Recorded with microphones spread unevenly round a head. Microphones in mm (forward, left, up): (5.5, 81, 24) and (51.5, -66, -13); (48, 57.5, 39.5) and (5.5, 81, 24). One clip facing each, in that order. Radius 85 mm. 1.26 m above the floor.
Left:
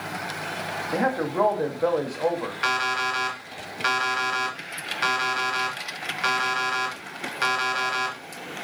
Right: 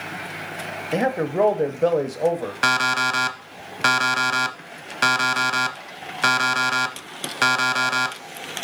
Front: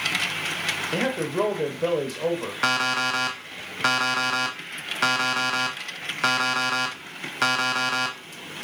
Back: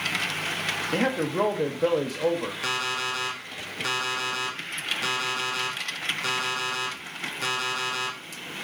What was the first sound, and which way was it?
A man speaking, 130° right.